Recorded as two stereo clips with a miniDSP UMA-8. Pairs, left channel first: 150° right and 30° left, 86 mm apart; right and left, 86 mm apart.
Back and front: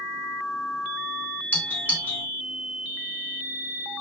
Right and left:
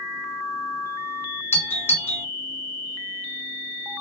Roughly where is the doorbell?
Right.